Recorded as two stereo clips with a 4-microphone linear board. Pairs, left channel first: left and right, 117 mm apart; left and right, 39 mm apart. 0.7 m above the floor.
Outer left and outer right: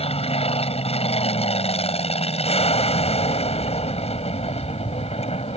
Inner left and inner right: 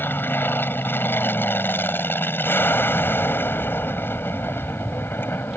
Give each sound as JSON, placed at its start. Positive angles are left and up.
{"t": 0.0, "sound": "an aircraft", "side_deg": 60}